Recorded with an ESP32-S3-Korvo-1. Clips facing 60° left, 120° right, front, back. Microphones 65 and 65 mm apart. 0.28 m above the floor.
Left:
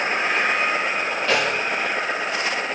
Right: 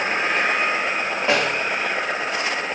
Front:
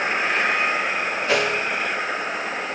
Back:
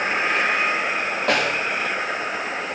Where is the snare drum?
175° left, 8 m.